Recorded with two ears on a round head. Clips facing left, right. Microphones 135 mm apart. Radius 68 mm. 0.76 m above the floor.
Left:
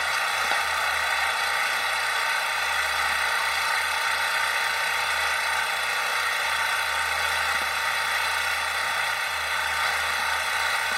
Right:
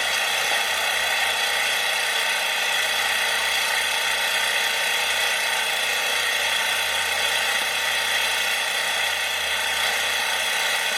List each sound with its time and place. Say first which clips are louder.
0.0 s an engine running: right 1 dB; 30° right (ahead or behind)